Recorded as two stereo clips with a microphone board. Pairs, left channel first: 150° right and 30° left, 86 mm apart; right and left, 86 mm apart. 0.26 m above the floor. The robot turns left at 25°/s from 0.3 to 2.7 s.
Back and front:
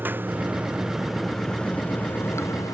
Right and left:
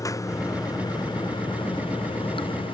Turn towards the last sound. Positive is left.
turn(degrees=-100)